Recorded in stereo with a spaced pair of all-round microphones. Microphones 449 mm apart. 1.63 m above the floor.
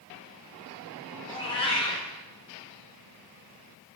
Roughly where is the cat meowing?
Centre.